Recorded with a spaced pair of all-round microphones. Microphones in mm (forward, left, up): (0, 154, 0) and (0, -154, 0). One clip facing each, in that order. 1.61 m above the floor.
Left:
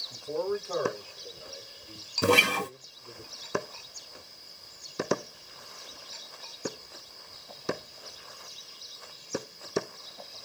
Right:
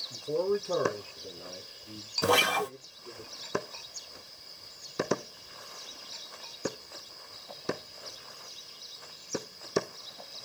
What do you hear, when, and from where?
0.1 s a man speaking: 15° right (ahead or behind), 1.0 m; by 3.2 s 75° right (ahead or behind), 2.5 m
2.2 s a guitar: 30° left (ahead or behind), 0.6 m